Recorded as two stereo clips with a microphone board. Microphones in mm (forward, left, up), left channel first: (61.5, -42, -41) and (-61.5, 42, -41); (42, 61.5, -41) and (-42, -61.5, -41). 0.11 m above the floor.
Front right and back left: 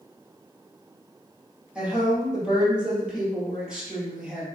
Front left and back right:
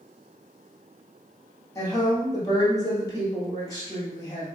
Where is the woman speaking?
70° left, 1.6 m.